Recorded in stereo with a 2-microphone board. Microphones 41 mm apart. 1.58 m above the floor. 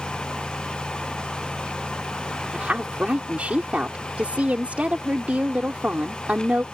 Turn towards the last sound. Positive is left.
turn(degrees=-35)  # may be behind; listen again after turning